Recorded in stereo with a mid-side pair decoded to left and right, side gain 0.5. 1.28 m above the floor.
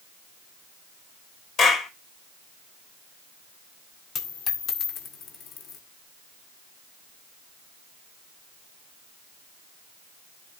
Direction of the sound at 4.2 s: 60° left.